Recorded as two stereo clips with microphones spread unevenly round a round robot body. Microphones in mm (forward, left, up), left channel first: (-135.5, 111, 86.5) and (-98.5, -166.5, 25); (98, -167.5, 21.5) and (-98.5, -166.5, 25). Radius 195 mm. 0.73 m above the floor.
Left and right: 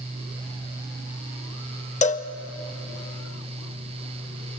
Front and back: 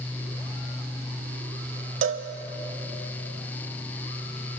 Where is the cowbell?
155° left, 0.9 m.